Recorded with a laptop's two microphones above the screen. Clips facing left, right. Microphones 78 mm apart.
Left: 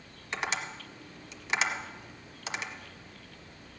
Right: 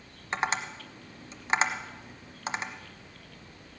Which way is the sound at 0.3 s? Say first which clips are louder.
Right 4 dB; 35° right (ahead or behind).